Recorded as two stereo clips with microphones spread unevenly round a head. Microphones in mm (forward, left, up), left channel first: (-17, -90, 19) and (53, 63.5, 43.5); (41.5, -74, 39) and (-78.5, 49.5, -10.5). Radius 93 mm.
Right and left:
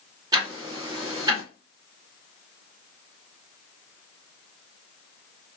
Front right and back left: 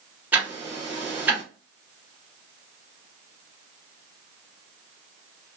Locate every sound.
0.3 s ticking: 35° left, 0.8 m